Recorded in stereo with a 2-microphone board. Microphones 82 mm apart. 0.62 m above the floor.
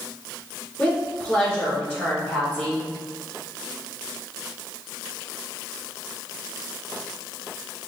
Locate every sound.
0.8 s a woman speaking: 25° left (ahead or behind), 1.7 m